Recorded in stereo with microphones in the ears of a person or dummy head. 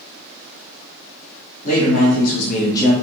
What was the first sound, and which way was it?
A man speaking, 45° left (ahead or behind).